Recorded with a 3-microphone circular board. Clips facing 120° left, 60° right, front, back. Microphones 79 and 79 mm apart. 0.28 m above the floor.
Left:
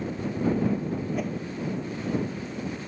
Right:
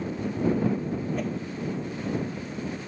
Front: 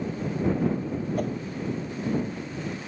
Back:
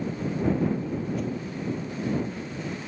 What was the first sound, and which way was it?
A whoosh, 35° left.